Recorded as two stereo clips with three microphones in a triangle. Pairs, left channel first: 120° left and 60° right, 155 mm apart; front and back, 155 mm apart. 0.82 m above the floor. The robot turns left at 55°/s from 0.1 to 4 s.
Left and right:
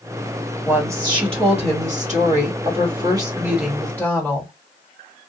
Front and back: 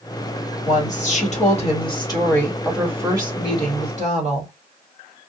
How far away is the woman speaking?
About 1.4 m.